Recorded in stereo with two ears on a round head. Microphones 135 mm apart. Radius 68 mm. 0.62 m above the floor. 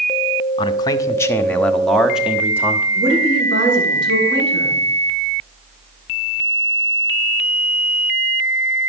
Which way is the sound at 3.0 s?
80° right.